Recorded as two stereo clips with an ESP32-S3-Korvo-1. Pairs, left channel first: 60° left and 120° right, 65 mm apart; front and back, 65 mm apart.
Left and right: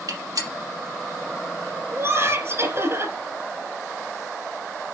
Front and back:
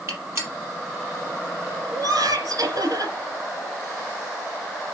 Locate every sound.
0.1 s a gunshot: 135° right, 4 m
1.9 s laughter: 165° right, 4 m